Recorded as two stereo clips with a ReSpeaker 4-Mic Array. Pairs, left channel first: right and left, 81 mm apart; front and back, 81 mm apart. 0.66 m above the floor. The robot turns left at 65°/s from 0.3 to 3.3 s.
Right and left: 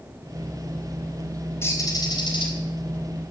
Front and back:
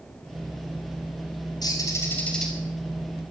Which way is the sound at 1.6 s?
30° right.